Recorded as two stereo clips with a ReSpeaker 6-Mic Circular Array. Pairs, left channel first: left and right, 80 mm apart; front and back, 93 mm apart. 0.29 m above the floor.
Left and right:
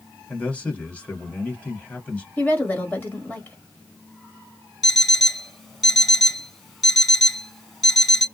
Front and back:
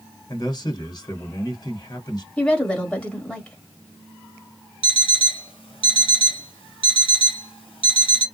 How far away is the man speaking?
About 2.0 m.